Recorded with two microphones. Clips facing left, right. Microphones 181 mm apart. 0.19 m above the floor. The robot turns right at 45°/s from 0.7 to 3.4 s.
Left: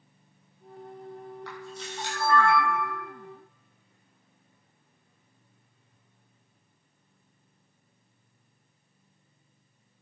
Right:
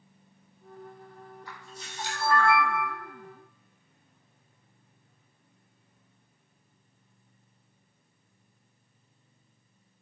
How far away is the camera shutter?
About 2.5 m.